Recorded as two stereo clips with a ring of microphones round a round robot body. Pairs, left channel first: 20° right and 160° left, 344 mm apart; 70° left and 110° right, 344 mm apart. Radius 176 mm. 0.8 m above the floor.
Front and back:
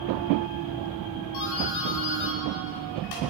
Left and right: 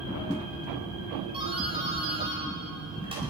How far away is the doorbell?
About 5 m.